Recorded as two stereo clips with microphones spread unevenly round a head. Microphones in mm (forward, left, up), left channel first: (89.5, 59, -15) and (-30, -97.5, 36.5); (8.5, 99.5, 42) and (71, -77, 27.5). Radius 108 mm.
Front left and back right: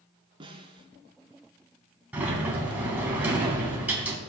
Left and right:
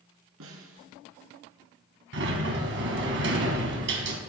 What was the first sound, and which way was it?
A snare drum, 65° right.